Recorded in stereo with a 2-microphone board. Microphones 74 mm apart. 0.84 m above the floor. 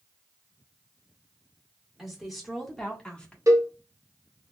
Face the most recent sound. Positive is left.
turn(degrees=-45)  # may be behind; listen again after turning